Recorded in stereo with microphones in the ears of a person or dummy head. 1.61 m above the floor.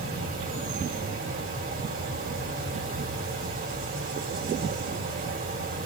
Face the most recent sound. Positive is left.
turn(degrees=-55)  # may be behind; listen again after turning